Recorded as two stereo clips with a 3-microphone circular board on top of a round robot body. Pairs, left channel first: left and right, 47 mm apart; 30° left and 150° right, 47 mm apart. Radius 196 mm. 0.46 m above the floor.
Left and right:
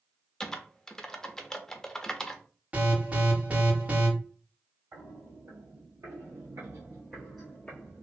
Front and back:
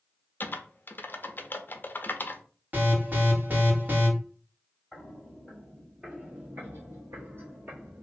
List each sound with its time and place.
0.4 s typing on a keyboard: 15° left, 0.8 m
2.7 s an alarm: 130° right, 1.8 m
4.9 s footsteps: 65° right, 1.2 m; by 8.0 s 150° left, 0.8 m